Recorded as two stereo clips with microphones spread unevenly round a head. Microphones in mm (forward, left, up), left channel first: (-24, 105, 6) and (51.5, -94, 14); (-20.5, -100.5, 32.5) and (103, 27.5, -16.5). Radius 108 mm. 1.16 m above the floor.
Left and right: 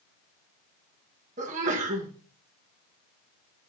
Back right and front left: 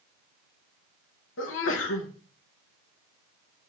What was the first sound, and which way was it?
A sneeze, 125° right.